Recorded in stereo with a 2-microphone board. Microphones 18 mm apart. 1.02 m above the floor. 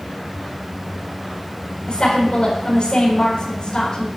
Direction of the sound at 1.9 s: 50° left (ahead or behind).